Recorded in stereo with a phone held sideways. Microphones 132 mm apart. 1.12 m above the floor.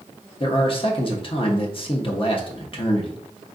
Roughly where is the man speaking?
Left.